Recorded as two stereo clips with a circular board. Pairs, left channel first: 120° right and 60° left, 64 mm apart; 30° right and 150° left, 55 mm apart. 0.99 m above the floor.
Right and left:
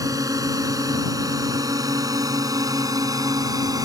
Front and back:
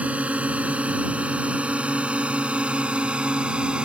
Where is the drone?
85° left; by 3.9 s 80° left.